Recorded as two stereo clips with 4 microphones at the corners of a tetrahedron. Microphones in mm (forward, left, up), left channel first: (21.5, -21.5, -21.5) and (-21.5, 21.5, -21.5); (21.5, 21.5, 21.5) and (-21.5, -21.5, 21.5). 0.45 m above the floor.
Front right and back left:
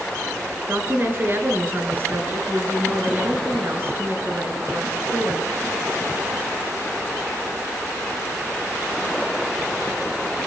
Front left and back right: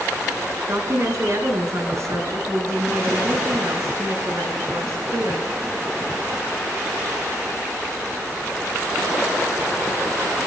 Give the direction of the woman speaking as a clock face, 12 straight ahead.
6 o'clock.